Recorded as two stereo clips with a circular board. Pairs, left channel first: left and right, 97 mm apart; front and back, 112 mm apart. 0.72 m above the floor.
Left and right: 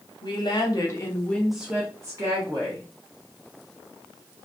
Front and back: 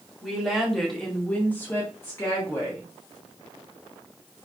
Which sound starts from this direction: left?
A woman speaking, at 0.2 s.